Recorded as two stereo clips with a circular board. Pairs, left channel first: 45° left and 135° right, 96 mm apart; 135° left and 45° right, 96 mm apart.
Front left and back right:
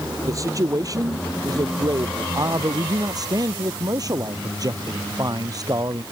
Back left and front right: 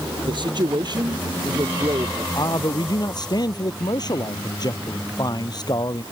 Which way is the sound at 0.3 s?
80° right.